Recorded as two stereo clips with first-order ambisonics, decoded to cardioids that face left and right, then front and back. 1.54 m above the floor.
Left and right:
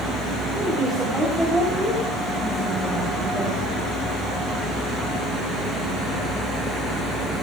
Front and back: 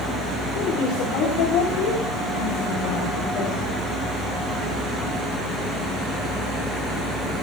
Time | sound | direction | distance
0.6 | a woman speaking | 10° right | 5 m